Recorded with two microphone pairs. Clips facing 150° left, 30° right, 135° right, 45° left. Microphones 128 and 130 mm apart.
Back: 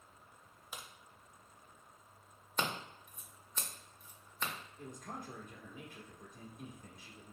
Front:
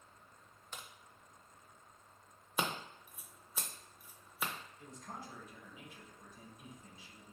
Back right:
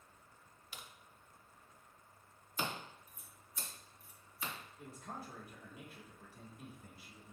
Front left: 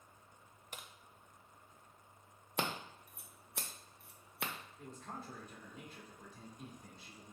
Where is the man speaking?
145° left, 1.3 m.